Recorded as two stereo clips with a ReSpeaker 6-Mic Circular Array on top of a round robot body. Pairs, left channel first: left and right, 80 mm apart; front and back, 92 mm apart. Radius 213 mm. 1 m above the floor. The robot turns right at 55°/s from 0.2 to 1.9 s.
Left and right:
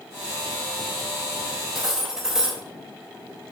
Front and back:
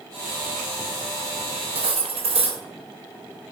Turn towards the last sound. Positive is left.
turn(degrees=-175)